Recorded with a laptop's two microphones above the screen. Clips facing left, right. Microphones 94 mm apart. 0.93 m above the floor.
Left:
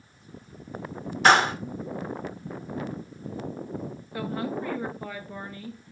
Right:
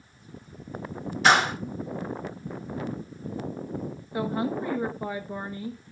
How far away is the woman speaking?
About 1.1 m.